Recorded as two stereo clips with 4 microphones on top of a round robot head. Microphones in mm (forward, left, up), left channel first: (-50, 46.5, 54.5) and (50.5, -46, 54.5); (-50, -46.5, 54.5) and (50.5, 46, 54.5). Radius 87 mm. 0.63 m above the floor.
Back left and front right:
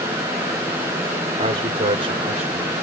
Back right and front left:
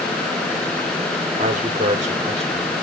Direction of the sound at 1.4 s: 5° right.